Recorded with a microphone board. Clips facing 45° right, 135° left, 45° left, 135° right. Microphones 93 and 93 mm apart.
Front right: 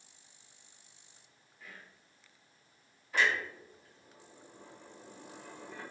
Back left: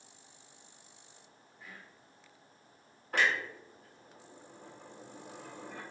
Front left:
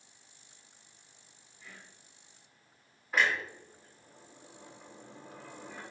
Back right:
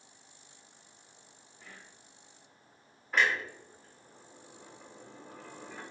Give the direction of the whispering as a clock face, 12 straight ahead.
5 o'clock.